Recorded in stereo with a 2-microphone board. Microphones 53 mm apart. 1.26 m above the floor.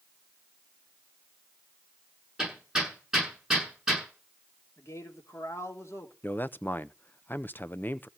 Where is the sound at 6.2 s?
40° left (ahead or behind), 0.6 m.